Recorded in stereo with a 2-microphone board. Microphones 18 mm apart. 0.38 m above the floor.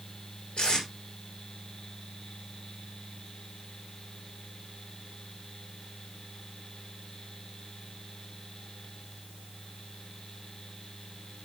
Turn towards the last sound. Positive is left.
turn(degrees=85)